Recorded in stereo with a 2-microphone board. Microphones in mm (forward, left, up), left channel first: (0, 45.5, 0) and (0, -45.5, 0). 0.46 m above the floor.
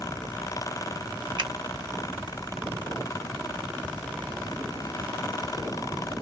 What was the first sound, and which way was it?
A finger snap, 60° right (ahead or behind).